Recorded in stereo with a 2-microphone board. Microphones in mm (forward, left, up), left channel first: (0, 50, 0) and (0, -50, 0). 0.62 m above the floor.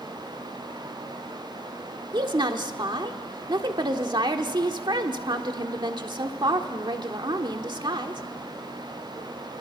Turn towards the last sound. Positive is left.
turn(degrees=-50)  # may be behind; listen again after turning